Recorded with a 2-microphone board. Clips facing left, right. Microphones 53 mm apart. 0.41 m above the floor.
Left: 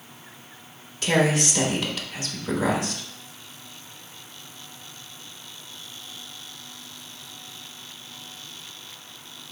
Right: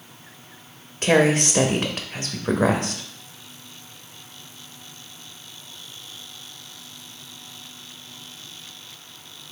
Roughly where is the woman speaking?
Right.